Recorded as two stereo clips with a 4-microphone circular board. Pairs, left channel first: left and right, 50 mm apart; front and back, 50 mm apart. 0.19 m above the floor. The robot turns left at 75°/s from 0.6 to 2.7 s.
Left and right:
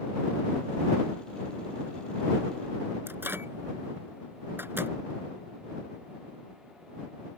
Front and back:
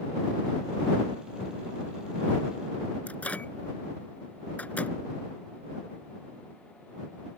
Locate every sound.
3.1 s a microwave: 55° right